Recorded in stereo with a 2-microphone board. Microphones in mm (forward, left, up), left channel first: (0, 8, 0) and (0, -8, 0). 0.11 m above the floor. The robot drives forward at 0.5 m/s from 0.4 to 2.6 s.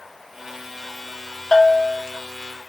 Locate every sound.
1.5 s a bell: 30° left (ahead or behind), 0.6 m; by 2.1 s 25° left (ahead or behind), 0.7 m